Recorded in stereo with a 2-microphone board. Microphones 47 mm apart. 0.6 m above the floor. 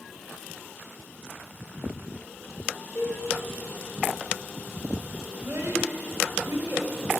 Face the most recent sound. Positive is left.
turn(degrees=-75)  # may be behind; listen again after turning